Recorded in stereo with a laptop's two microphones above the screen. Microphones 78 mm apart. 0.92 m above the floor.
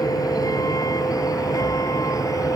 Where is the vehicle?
50° left (ahead or behind).